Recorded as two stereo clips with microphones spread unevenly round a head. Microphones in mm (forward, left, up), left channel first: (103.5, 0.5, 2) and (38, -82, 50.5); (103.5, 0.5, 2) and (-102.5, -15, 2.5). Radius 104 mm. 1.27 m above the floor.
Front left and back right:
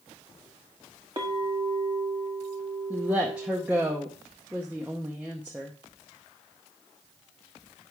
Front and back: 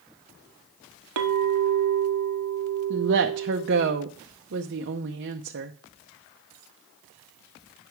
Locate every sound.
1.2 s a clink: 175° left, 0.9 m
2.9 s a woman speaking: 145° left, 0.7 m